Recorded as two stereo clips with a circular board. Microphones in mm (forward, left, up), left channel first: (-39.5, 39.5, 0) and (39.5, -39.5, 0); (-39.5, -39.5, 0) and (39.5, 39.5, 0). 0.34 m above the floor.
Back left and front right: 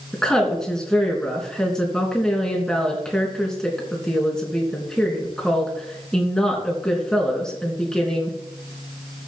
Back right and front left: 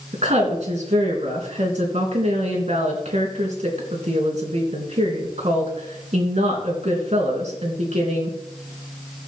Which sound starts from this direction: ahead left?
A woman speaking, at 0.1 s.